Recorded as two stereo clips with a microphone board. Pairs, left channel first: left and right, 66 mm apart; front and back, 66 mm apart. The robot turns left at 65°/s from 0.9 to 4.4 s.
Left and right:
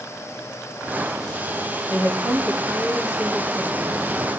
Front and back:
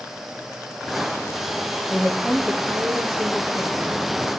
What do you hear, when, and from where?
1.9 s a woman speaking: 90° right, 2.5 m; by 3.8 s 145° left, 2.5 m